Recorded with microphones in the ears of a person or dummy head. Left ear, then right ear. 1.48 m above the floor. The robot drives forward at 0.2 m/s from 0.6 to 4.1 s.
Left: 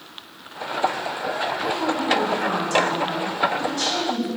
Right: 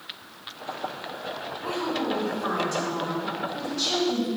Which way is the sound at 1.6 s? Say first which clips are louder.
Left 2 dB; 85° left.